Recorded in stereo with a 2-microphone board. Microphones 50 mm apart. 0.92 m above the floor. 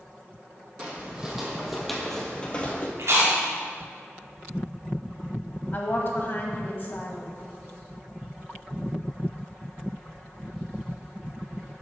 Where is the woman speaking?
45° left (ahead or behind), 1.3 m.